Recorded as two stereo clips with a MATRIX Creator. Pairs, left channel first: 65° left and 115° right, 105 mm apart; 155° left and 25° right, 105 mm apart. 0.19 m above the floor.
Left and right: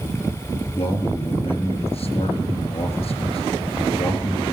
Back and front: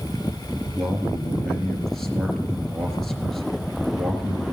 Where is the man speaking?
70° left, 3.5 m.